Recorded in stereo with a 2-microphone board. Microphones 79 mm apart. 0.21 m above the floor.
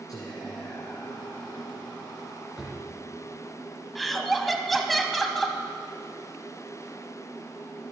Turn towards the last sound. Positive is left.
turn(degrees=0)  # may be behind; listen again after turning